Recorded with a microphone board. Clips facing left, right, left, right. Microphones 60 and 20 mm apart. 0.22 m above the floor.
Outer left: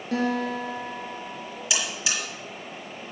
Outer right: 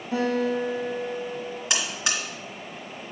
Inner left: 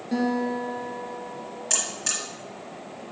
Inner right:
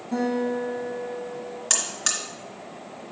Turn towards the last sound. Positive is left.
turn(degrees=-40)  # may be behind; listen again after turning